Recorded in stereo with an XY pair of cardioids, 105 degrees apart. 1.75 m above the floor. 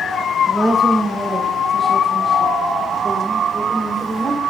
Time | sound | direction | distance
0.5 | a woman speaking | 15° right | 3.5 m